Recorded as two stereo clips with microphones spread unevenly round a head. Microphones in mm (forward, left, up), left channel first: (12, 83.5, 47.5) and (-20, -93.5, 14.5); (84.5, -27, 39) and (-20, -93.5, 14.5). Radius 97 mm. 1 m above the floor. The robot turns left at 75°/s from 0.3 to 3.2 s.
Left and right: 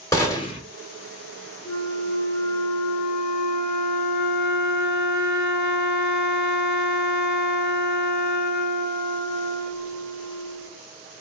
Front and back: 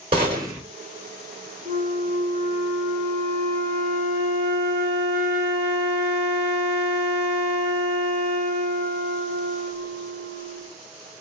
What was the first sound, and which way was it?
A gunshot, 145° left.